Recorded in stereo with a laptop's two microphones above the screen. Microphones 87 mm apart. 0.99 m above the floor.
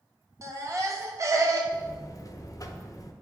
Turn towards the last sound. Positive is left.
turn(degrees=40)  # may be behind; listen again after turning